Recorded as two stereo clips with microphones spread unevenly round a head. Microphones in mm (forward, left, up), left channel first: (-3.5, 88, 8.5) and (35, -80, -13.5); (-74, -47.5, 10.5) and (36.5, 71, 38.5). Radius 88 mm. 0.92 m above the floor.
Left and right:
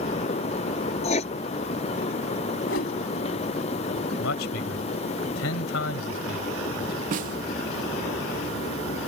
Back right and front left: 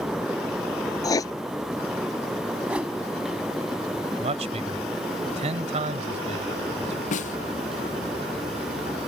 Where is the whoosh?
125° left.